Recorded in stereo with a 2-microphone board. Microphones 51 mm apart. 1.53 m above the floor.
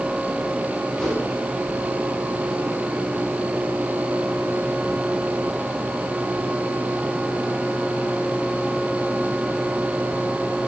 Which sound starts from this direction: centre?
A whoosh, at 1.0 s.